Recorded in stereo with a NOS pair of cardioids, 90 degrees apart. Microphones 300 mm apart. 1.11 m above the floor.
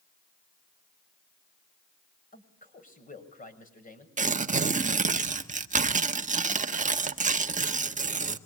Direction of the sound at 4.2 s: 25° right.